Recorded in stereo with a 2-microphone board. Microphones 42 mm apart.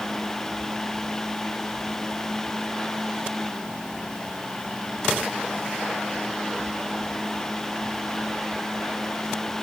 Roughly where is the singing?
No singing in this recording.